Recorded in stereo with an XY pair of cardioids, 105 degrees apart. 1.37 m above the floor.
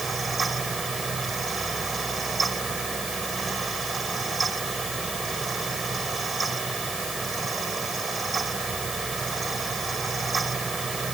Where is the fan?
30° right.